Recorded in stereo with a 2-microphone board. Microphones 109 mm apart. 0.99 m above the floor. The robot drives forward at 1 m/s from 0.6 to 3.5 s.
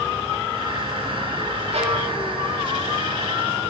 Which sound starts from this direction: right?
A violin, at 1.7 s.